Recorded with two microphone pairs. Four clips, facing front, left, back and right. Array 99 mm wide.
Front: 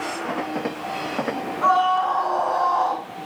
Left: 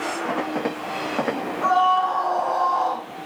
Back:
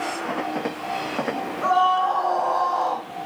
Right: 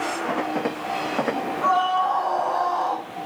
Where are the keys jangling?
No keys jangling in this recording.